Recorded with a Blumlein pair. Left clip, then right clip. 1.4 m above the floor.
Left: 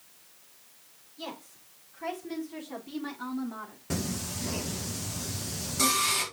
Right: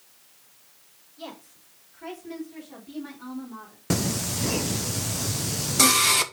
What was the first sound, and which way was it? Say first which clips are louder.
A woman speaking: even; straight ahead.